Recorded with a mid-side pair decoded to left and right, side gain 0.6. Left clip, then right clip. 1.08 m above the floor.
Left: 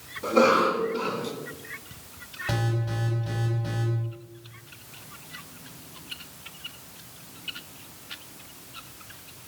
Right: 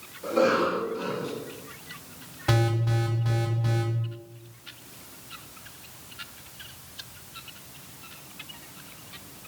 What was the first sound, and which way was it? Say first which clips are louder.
A cough: left 3 dB; 35° left.